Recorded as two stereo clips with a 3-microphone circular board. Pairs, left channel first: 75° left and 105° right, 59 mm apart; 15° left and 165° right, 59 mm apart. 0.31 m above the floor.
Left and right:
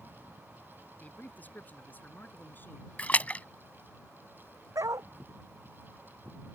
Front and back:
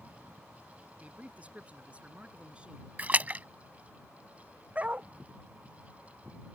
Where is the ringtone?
No ringtone in this recording.